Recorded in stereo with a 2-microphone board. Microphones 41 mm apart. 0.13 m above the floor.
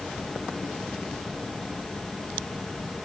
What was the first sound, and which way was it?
Only background noise.